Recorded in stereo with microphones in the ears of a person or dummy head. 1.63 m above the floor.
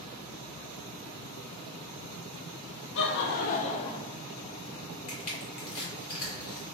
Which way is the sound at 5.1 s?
40° left (ahead or behind).